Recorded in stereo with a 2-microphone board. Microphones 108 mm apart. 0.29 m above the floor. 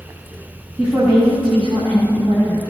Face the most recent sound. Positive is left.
turn(degrees=-55)  # may be behind; listen again after turning